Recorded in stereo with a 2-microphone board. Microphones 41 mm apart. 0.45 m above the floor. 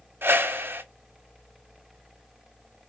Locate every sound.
0.2 s a whoosh: 65° right (ahead or behind), 0.9 m